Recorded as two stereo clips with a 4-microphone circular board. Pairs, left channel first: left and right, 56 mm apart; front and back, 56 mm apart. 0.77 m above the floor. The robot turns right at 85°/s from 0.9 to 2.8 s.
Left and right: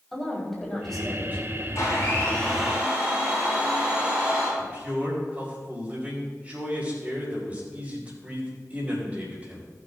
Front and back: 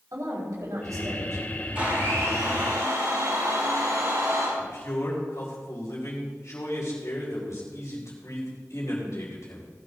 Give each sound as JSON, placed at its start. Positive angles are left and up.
{"t": 0.1, "sound": "a woman speaking", "azimuth_deg": 175, "distance_m": 5.0}
{"t": 1.8, "sound": "a blender", "azimuth_deg": 110, "distance_m": 5.0}
{"t": 4.6, "sound": "a man speaking", "azimuth_deg": -25, "distance_m": 5.0}